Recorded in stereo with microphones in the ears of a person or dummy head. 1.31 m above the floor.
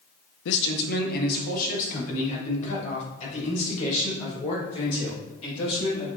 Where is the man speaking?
75° left (ahead or behind), 0.8 m; by 6.1 s 30° left (ahead or behind), 5.5 m.